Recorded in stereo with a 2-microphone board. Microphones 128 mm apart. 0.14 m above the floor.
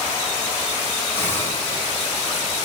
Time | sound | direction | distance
1.2 | a hiss | 15° left (ahead or behind) | 8 m